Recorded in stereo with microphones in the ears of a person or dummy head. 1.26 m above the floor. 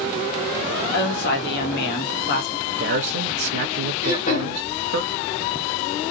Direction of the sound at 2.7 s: 50° right (ahead or behind).